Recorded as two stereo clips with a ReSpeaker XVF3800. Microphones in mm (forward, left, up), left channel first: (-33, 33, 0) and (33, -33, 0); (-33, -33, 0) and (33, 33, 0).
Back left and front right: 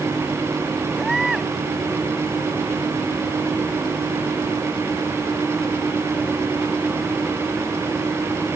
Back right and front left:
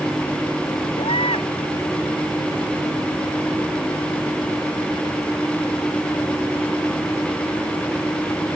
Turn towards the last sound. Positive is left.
turn(degrees=-130)